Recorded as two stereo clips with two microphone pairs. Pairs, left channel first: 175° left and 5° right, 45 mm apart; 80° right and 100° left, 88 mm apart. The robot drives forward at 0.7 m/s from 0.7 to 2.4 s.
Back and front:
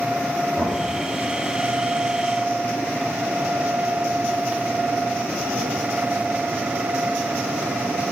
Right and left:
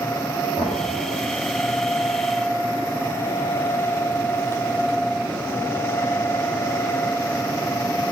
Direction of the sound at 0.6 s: 25° right.